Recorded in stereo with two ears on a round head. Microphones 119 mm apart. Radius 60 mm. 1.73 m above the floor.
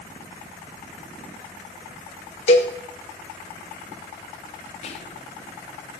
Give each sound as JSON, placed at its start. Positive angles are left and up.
{"t": 2.5, "sound": "a cowbell", "side_deg": 55, "distance_m": 2.0}
{"t": 4.8, "sound": "whispering", "side_deg": 50, "distance_m": 1.3}